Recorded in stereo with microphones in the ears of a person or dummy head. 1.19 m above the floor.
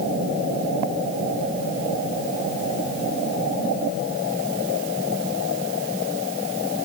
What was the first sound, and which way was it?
Only background noise.